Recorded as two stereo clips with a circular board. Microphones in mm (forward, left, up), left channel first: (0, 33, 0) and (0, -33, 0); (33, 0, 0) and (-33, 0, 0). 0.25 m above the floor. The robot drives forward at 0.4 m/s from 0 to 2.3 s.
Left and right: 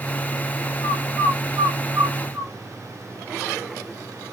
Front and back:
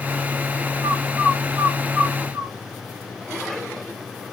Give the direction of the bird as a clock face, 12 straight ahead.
4 o'clock.